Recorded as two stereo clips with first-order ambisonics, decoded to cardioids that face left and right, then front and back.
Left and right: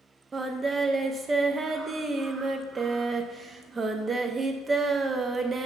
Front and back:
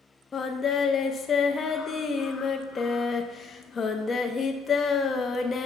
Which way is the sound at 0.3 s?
40° right.